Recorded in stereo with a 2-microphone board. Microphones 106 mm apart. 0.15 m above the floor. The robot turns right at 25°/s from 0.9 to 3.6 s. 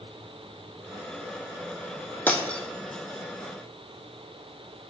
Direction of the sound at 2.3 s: 15° left (ahead or behind).